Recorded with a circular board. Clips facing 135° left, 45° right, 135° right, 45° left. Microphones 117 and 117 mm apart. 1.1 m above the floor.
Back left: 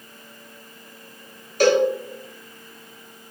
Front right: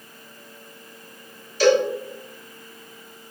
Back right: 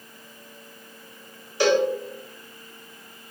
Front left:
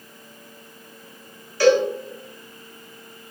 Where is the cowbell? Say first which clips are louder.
Even, front left 4 dB; 160° left, 0.8 m.